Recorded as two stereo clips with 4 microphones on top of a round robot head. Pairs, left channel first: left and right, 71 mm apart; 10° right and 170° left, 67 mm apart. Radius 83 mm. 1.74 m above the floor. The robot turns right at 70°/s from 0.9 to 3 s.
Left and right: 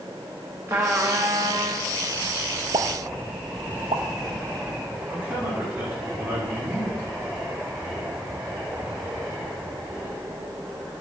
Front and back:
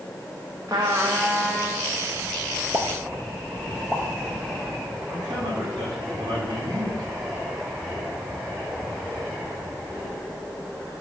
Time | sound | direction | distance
0.7 | a trumpet | 130° right | 1.1 m
2.7 | a pop | 125° right | 0.8 m
5.1 | a man speaking | 150° right | 5.5 m